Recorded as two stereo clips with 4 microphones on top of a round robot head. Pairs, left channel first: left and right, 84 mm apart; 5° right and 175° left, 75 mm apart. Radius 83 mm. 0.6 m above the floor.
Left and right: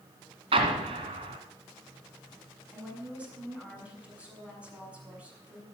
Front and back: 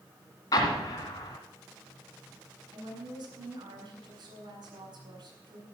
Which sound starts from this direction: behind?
A woman speaking, at 2.7 s.